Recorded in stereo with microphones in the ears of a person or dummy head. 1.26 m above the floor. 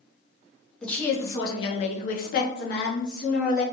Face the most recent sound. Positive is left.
turn(degrees=50)  # may be behind; listen again after turning